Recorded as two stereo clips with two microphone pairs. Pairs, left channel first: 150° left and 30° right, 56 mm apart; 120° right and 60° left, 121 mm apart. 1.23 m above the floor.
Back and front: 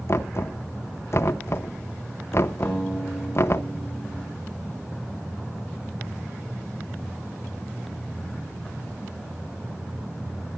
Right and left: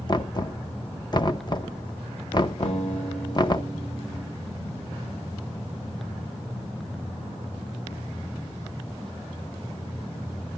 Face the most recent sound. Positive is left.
turn(degrees=-135)